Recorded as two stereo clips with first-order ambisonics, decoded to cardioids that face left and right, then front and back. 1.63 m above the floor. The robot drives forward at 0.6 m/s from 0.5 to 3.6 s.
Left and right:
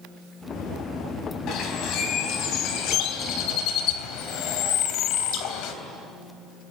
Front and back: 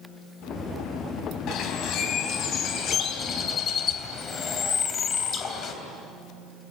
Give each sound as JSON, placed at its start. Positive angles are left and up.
{"t": 1.5, "sound": "a bird", "azimuth_deg": 45, "distance_m": 4.0}